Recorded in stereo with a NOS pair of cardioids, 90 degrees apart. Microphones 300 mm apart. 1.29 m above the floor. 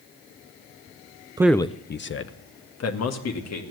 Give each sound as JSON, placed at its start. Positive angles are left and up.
{"t": 1.4, "sound": "a man speaking", "azimuth_deg": -15, "distance_m": 0.5}